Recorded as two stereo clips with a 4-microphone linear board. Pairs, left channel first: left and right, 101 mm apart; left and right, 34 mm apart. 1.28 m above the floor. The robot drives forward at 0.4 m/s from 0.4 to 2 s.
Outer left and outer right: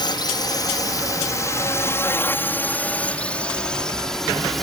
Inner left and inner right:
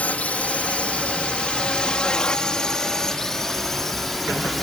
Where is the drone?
45° left (ahead or behind); by 4.6 s centre (ahead or behind).